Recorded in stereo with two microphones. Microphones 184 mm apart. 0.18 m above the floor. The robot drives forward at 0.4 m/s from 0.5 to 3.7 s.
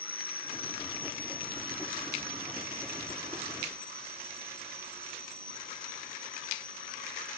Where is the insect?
55° left (ahead or behind); by 7.4 s 50° left (ahead or behind).